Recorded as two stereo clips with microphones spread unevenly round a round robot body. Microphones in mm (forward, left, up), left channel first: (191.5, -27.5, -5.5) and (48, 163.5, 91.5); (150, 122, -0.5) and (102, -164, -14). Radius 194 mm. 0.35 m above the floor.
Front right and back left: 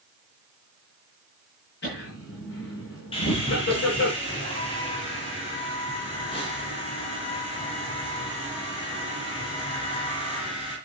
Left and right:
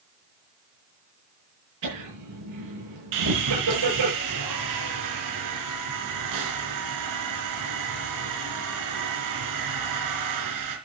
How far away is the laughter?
About 7 m.